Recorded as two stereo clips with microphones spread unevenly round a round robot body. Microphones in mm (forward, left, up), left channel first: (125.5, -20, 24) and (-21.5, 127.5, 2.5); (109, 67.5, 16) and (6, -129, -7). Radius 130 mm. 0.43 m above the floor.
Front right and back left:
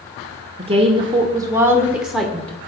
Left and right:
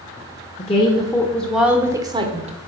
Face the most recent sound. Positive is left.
turn(degrees=-130)